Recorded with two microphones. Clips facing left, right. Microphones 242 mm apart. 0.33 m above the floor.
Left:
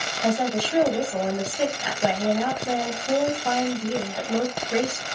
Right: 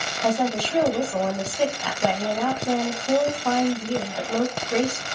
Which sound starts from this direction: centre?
A woman speaking, at 0.2 s.